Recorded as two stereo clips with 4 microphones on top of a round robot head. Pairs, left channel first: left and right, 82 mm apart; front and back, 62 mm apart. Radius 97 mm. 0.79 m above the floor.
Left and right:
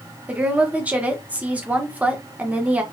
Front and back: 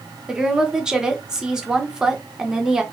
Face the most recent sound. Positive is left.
turn(degrees=-120)